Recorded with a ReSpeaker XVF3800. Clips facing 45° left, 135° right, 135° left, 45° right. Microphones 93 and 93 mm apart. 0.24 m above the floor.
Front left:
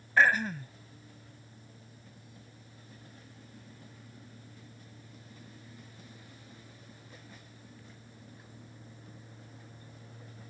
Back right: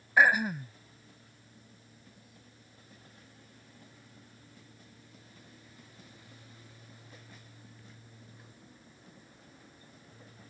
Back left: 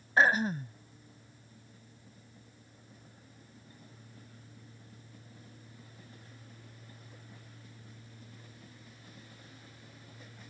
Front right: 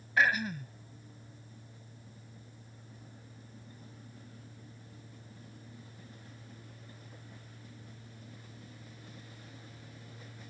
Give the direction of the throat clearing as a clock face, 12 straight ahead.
7 o'clock.